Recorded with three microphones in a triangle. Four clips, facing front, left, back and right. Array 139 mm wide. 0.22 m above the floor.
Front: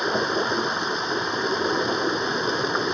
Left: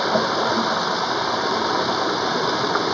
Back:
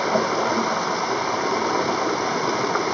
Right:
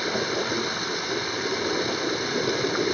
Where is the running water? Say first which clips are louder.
Left 7 dB, back 3 dB; 130° left.